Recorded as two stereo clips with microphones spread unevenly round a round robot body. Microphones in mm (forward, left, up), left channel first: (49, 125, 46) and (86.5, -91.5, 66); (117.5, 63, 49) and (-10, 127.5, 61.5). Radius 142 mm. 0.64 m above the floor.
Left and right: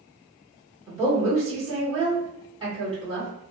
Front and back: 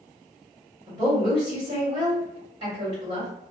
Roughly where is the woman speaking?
Behind.